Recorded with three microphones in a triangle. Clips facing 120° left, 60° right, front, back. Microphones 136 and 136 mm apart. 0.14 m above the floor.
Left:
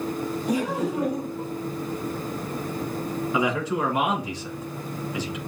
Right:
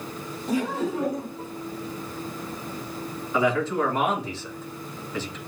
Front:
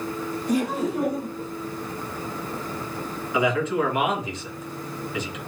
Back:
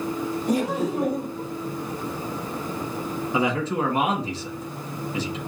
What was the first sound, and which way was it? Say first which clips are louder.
Laughter: right 1 dB, even; 165° right.